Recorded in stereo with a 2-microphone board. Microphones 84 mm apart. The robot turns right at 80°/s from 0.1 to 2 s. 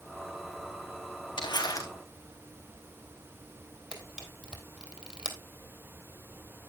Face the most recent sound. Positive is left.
turn(degrees=-15)  # may be behind; listen again after turning